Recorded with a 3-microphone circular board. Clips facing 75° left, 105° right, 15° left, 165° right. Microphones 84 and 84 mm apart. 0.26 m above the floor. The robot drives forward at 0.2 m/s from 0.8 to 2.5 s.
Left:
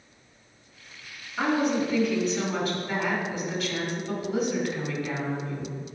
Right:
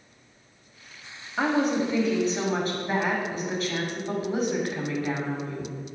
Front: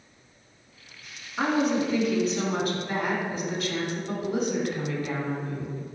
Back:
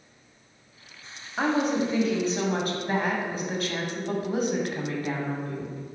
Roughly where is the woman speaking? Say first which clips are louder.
Right 1 dB, even; behind right.